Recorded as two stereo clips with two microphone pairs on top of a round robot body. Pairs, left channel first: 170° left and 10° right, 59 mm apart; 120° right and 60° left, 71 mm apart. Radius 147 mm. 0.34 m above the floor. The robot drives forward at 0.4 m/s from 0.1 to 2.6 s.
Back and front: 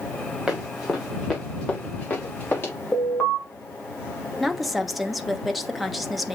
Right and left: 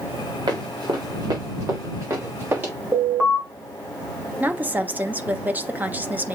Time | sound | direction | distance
0.5 | running footsteps | 70° left | 3.5 m
2.9 | an alarm | 110° left | 3 m
4.4 | a woman speaking | 100° left | 1.2 m